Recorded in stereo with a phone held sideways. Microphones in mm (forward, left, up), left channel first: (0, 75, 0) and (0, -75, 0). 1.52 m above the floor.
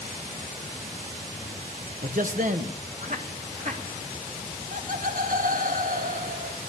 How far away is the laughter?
About 1.8 m.